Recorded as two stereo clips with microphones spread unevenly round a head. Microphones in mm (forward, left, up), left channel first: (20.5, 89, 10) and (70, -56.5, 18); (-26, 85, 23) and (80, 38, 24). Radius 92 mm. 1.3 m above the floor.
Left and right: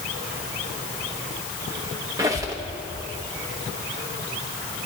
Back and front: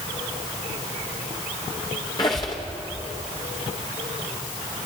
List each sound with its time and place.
2.2 s a squeak: 140° right, 0.8 m